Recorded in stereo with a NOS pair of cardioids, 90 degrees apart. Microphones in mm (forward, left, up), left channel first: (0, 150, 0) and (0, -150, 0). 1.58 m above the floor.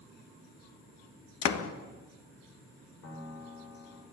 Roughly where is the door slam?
Ahead left.